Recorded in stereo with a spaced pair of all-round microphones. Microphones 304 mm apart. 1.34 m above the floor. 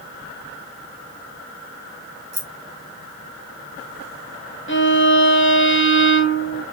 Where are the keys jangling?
55° right (ahead or behind), 1.1 m.